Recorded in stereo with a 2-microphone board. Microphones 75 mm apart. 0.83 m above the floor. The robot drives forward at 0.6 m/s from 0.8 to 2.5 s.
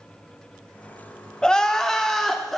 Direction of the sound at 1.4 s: 10° left (ahead or behind).